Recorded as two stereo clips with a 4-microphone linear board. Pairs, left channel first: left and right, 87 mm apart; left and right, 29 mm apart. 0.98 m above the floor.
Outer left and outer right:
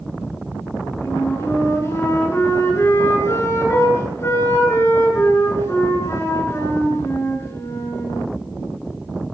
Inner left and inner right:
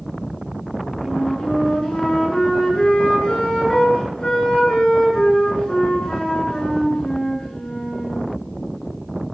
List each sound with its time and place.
1.0 s a flute: 30° left (ahead or behind), 8.5 m